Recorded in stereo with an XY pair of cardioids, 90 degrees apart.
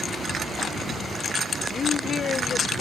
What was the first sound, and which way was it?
A woman speaking, 60° left.